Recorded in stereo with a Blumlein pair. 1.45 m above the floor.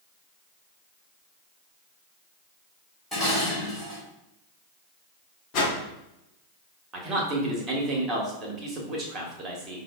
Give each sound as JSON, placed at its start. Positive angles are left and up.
{"t": 3.1, "sound": "dishes clattering", "azimuth_deg": 0, "distance_m": 1.5}
{"t": 5.5, "sound": "a whoosh", "azimuth_deg": 35, "distance_m": 0.9}
{"t": 6.9, "sound": "a man speaking", "azimuth_deg": -25, "distance_m": 1.2}